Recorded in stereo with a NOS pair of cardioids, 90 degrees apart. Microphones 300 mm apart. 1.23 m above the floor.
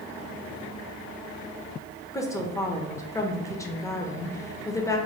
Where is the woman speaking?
10° left, 0.7 m.